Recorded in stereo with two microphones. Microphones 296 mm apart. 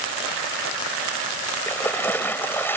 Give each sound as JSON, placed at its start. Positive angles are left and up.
{"t": 1.7, "sound": "a splash", "side_deg": 5}